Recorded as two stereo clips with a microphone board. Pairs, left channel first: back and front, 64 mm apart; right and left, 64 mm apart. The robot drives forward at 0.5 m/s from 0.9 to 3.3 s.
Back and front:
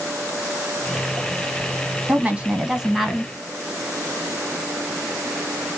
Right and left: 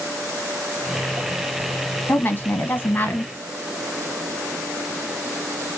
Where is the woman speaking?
45° right, 1.2 m; by 3.3 s 100° right, 1.1 m.